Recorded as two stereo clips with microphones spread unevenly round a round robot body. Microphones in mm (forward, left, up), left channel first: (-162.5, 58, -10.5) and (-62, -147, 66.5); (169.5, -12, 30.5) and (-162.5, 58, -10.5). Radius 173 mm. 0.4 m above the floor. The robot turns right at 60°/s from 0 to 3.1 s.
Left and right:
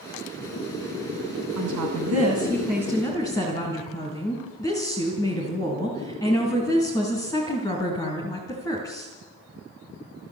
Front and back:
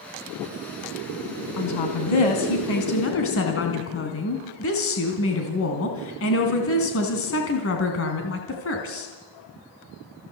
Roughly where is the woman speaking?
Ahead right.